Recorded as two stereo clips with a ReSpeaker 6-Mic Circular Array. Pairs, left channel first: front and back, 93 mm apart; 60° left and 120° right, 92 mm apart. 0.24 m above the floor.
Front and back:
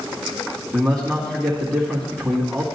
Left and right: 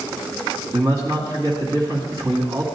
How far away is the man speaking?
About 1.9 m.